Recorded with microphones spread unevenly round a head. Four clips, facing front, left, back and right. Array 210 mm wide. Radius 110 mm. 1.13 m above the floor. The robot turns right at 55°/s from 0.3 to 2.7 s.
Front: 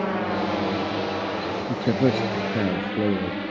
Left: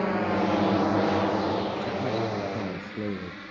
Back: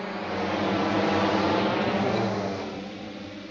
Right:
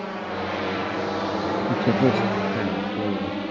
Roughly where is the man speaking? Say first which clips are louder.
Right 8 dB, front 3 dB; ahead right.